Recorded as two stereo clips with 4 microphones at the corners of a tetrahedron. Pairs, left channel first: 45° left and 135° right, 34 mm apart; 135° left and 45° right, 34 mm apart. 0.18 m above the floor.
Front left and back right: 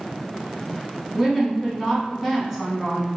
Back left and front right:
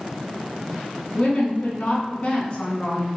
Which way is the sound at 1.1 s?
155° left.